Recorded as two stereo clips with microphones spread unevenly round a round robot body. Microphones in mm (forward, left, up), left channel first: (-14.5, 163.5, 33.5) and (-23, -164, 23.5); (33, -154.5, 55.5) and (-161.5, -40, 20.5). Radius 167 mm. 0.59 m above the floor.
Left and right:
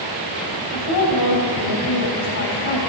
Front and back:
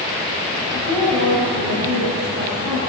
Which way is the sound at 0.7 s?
125° left.